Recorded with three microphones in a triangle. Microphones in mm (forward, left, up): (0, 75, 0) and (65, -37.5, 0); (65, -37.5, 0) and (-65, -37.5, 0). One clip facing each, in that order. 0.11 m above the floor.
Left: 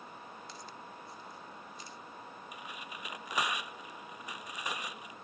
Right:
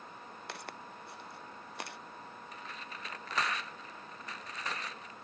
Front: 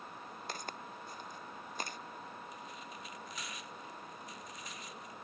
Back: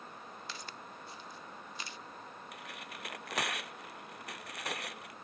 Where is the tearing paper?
165° right.